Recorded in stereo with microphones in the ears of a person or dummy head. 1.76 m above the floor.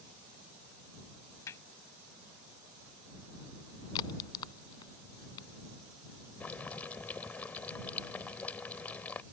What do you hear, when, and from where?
1.5 s hammering: 20° left (ahead or behind)
4.0 s a crack: 30° left (ahead or behind)
6.4 s boiling: 15° left (ahead or behind)